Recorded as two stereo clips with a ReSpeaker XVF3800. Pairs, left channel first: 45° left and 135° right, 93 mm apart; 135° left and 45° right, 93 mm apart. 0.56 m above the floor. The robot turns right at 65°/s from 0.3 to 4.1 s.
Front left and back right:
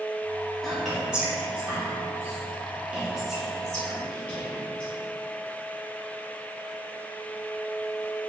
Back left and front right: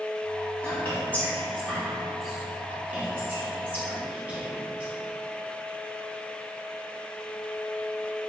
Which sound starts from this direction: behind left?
Whispering, at 0.6 s.